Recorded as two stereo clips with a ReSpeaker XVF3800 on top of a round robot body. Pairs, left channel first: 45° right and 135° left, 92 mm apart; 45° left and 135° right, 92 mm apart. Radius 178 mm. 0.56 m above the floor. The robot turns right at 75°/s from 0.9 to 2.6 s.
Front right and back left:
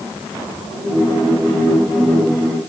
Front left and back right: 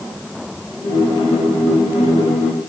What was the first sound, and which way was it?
Only background noise.